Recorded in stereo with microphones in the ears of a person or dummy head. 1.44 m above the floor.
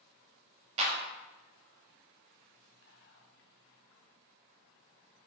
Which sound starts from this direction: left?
Whispering, at 2.8 s.